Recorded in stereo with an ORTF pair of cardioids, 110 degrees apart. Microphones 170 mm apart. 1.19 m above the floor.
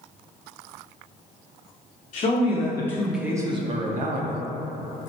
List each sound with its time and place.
2.1 s a man speaking: 40° left, 0.8 m; by 4.4 s 60° right, 0.8 m